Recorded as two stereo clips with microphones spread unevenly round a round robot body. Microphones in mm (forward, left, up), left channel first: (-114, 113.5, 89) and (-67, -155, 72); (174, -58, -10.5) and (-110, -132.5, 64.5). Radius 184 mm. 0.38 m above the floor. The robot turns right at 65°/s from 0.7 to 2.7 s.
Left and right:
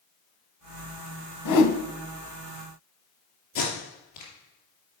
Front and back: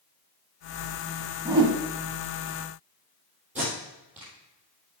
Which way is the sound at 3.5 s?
110° left.